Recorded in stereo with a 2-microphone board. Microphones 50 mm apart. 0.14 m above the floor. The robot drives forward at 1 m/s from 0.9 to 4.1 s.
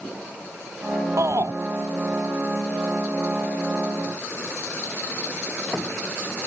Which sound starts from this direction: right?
A shout, at 1.2 s.